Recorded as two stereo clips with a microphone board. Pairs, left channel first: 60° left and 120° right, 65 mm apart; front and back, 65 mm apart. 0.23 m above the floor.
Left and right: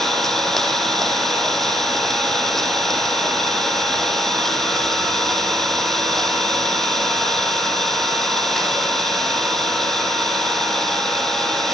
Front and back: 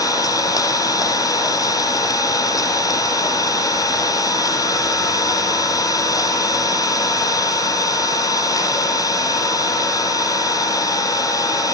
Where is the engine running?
25° right, 3 m.